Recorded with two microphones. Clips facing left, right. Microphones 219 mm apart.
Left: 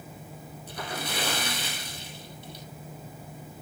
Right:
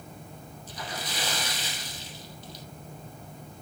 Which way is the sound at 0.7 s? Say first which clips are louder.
Left 3 dB; 60° left (ahead or behind).